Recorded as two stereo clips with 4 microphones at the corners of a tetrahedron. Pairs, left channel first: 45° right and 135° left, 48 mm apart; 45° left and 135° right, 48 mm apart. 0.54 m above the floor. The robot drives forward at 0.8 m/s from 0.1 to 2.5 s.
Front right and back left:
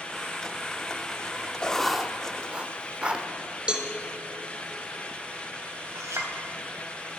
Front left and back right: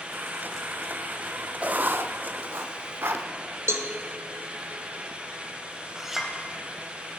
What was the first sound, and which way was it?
Writing, 100° right.